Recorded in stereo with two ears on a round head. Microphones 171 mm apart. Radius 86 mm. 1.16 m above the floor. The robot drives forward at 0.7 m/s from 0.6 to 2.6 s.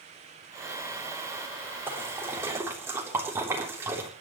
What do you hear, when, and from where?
1.9 s a splash: 10° right (ahead or behind), 4 m; by 4.1 s 15° right (ahead or behind), 3.5 m